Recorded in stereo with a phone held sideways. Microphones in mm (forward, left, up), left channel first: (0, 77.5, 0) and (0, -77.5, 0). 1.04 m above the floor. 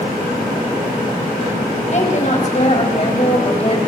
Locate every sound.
1.9 s a woman speaking: 50° left (ahead or behind), 5 m; by 3.8 s 40° left (ahead or behind), 4 m